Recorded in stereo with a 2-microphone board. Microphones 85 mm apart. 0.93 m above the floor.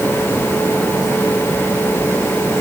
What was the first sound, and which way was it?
Only background noise.